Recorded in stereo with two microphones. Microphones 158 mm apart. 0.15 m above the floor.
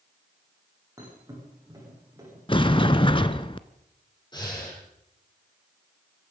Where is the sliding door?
35° left (ahead or behind), 0.7 m.